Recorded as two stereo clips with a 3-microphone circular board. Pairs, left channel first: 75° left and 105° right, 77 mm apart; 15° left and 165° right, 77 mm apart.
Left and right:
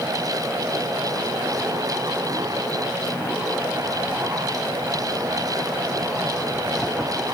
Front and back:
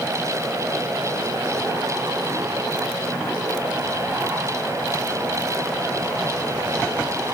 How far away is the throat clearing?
I don't hear throat clearing.